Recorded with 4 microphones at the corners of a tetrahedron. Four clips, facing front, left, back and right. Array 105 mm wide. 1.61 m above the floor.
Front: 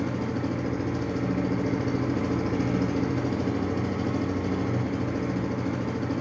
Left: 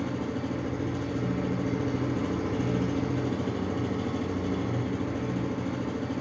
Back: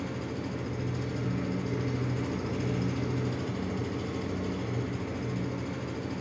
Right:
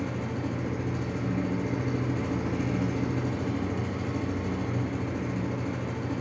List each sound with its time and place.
0.0 s an engine running: 20° left, 1.7 m